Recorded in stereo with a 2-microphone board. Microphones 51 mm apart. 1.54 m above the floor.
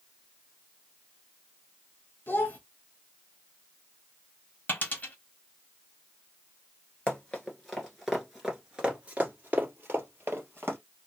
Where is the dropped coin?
30° left (ahead or behind), 1.2 m.